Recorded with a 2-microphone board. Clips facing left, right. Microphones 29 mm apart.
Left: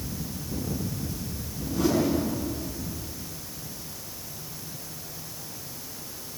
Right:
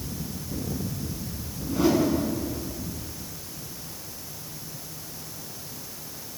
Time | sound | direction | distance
1.7 | a whoosh | 15° right (ahead or behind) | 7.5 m